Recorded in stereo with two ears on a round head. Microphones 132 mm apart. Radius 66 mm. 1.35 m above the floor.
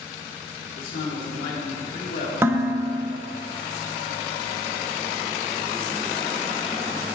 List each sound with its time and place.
0.8 s a man speaking: 65° left (ahead or behind), 2.5 m
2.4 s dishes clattering: 15° right (ahead or behind), 1.2 m